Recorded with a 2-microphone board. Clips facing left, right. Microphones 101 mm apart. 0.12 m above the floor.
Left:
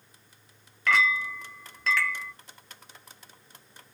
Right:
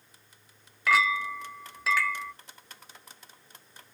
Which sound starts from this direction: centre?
A clink, at 0.9 s.